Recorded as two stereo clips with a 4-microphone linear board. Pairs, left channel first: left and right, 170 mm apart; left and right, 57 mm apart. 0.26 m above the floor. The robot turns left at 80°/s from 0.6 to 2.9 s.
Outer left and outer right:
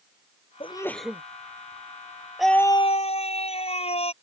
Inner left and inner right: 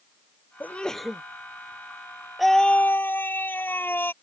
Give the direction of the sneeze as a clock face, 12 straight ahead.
11 o'clock.